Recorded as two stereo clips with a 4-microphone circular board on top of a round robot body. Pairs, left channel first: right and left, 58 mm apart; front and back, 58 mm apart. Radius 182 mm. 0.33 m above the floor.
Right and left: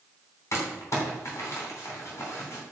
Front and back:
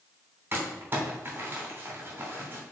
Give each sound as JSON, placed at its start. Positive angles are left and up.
{"t": 0.5, "sound": "crumpling", "azimuth_deg": -125, "distance_m": 3.0}